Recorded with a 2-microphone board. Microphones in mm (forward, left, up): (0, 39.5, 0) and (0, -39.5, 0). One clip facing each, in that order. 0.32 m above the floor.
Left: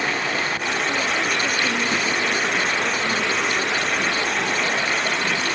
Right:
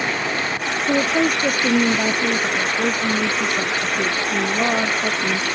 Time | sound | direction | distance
0.9 | a woman speaking | 45° right (ahead or behind) | ?